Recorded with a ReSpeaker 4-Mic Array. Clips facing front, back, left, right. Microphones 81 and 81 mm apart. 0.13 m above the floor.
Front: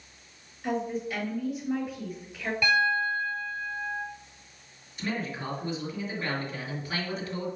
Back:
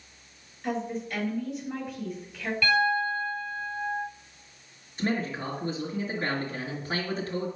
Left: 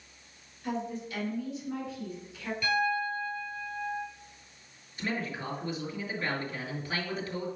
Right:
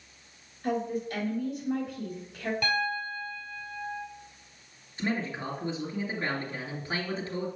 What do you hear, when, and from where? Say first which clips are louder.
0.6 s a woman speaking: front 1 dB, right 5 dB; 80° right, 3 m
2.6 s a piano: back 1 dB, left 4 dB; 65° right, 3.5 m
5.0 s a man speaking: back 4 dB, right 3 dB; 140° right, 2.5 m